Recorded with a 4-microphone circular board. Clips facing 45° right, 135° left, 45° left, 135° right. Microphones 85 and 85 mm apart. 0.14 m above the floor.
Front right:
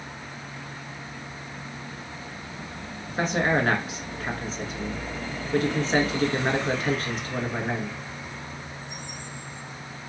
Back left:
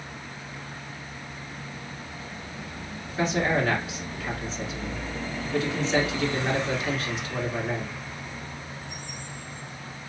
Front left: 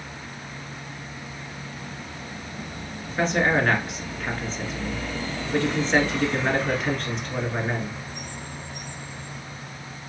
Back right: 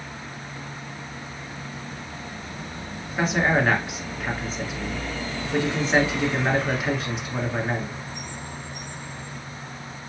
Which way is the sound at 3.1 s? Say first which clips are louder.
Front right 1 dB, even; 55° right.